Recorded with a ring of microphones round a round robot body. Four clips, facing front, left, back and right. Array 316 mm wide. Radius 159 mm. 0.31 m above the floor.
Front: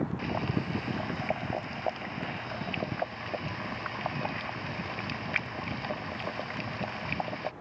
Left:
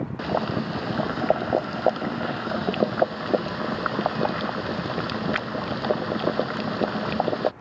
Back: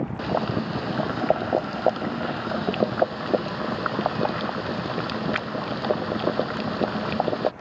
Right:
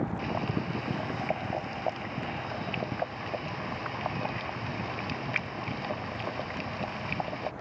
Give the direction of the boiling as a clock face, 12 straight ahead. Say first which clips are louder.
Left 6 dB, back 7 dB; 8 o'clock.